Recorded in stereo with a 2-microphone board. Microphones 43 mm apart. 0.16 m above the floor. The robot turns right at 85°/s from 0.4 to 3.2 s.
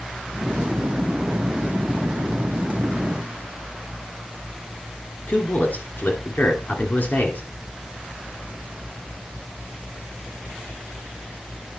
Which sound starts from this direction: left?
A man speaking, at 5.3 s.